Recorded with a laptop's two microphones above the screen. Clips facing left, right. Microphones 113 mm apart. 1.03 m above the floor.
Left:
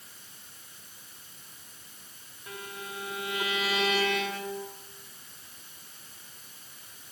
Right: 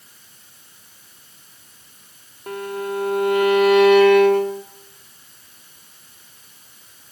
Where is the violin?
60° right (ahead or behind), 0.5 m.